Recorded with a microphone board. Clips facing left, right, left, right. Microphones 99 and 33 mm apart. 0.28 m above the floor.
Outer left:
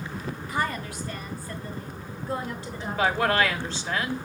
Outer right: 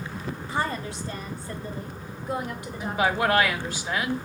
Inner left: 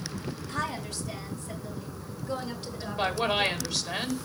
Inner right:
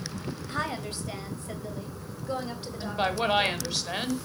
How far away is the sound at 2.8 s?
About 1.3 m.